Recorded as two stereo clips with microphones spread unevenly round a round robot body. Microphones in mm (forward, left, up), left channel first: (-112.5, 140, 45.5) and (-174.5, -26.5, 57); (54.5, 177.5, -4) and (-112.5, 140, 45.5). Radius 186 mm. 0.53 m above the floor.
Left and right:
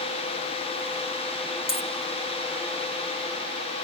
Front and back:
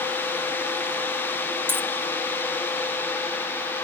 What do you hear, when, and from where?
1.7 s a dropped coin: 110° left, 1.2 m